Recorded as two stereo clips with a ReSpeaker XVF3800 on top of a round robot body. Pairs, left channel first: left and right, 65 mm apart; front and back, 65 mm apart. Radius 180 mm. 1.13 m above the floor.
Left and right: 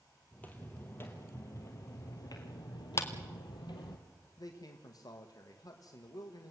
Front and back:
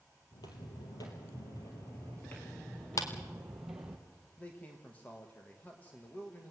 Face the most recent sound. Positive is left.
turn(degrees=65)